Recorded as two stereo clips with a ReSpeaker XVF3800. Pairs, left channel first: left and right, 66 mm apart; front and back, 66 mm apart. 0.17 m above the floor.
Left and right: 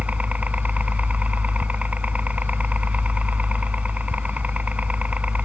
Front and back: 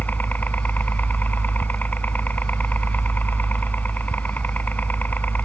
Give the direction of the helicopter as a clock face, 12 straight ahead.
1 o'clock.